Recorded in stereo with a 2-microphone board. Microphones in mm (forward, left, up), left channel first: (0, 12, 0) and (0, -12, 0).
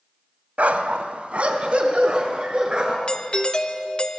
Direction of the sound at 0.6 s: 65° right (ahead or behind).